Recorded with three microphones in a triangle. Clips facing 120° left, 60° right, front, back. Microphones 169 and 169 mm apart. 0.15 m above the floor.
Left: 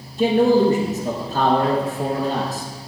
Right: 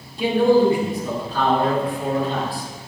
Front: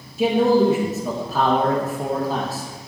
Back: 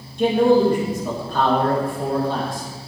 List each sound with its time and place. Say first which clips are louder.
0.2 s a man speaking: even, back 1 dB; 85° left, 3 m